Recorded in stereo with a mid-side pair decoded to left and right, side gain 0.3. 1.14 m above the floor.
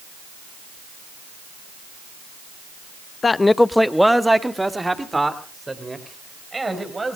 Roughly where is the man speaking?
Ahead left.